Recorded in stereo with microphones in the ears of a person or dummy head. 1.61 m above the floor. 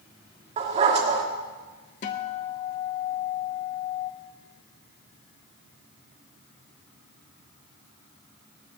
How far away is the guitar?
About 0.9 m.